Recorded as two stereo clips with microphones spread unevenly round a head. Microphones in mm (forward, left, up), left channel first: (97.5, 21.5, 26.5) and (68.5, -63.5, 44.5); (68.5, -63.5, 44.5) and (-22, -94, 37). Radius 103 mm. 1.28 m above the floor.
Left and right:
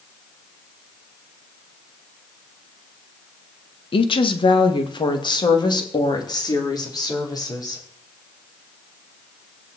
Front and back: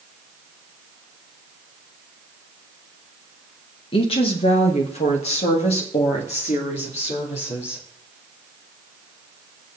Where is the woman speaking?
65° left, 1.4 m; by 7.8 s 25° left, 4.5 m.